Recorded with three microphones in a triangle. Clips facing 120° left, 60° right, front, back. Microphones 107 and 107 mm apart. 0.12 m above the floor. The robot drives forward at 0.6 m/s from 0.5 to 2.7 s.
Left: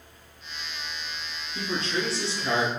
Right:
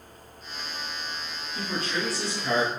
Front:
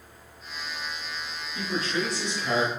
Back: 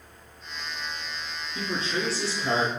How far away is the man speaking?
About 1.8 m.